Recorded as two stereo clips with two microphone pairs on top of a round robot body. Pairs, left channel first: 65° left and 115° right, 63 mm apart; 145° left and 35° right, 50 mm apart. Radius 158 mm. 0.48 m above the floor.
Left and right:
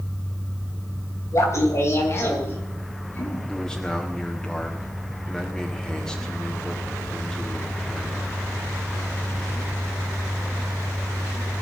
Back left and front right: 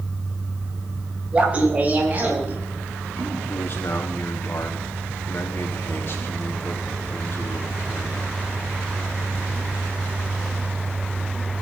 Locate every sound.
1.3 s laughter: 30° left, 3.5 m; by 3.4 s 10° left, 5 m
3.5 s a man speaking: 140° left, 1.7 m